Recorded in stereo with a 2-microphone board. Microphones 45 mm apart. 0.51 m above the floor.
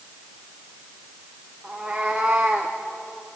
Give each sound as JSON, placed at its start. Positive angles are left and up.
{"t": 1.6, "sound": "a cat meowing", "side_deg": -5, "distance_m": 5.0}